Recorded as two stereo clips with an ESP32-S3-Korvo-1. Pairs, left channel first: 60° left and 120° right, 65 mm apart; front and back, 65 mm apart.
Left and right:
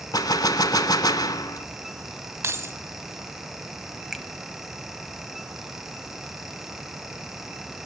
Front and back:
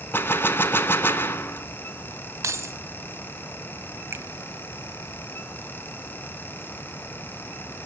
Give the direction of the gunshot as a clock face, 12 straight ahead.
10 o'clock.